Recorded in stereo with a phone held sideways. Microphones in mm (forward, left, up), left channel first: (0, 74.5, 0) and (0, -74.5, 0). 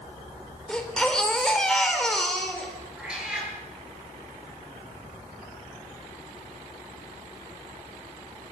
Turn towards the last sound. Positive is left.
turn(degrees=-5)  # may be behind; listen again after turning